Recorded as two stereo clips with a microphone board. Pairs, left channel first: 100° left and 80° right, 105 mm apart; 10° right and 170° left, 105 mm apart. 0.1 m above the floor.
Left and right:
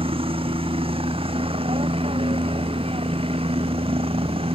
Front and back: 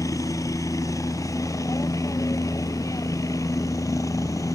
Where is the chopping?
I don't hear chopping.